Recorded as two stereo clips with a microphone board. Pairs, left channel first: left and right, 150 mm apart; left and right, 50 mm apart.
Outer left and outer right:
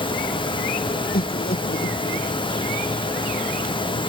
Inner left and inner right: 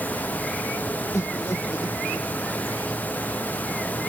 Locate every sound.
1.1 s laughter: 80° left